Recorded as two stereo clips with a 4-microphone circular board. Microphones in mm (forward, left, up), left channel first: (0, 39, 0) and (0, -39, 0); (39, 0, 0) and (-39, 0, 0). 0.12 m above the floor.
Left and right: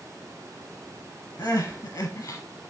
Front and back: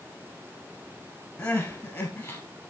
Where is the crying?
60° left, 1.0 m.